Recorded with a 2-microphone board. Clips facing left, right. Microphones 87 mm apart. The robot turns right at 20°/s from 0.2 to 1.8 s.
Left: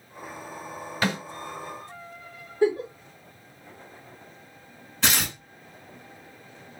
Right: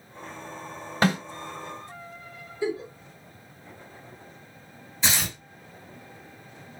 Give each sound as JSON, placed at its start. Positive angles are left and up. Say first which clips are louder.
{"t": 1.0, "sound": "a snare drum", "louder": "right 4 dB", "side_deg": -40, "distance_m": 2.5}
{"t": 2.6, "sound": "a giggle", "louder": "left 6 dB", "side_deg": 55, "distance_m": 1.2}
{"t": 5.0, "sound": "tearing paper", "louder": "left 2 dB", "side_deg": 70, "distance_m": 1.6}